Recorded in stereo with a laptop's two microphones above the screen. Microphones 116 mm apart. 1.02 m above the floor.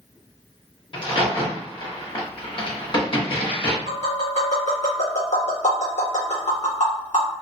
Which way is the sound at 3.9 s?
80° left.